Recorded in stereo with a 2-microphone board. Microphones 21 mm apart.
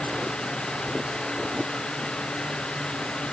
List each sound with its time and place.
Only background noise.